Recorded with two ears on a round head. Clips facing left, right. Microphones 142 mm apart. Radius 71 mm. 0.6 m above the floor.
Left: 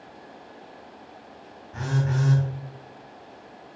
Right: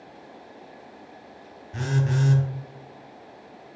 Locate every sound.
1.7 s a phone buzzing: 40° right (ahead or behind), 0.7 m